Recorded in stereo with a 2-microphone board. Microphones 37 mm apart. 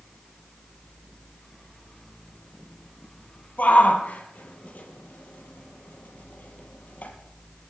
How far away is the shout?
About 4.5 m.